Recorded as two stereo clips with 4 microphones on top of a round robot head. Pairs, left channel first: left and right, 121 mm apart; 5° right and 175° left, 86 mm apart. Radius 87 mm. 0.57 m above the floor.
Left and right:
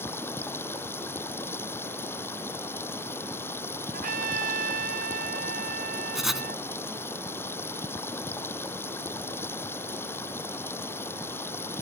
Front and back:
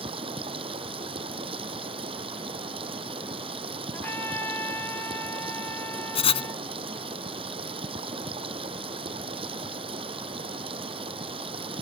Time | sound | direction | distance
0.0 | running water | 160° left | ?
3.9 | a trumpet | 80° right | ?
6.2 | writing | straight ahead | ?